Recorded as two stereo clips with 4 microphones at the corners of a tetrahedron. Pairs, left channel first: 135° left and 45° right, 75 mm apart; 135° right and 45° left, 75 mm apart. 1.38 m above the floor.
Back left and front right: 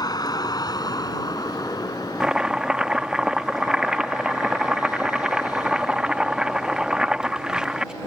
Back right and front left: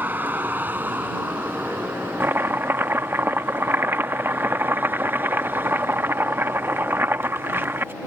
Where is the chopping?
25° left.